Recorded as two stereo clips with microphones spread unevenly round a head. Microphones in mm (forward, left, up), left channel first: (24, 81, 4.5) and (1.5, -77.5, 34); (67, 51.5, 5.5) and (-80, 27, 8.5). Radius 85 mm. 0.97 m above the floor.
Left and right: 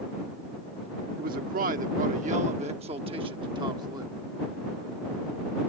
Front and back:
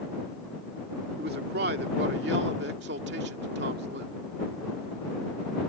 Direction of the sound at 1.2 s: 135° right.